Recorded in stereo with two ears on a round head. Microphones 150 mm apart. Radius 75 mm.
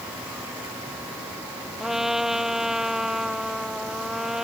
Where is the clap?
I don't hear a clap.